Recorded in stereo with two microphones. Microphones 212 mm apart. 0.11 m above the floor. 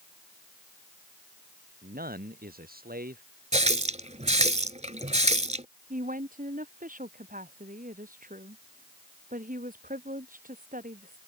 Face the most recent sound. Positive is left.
turn(degrees=-40)  # may be behind; listen again after turning